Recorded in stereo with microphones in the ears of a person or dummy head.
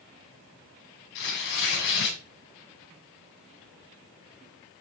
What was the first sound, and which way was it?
Tearing paper, 60° left (ahead or behind).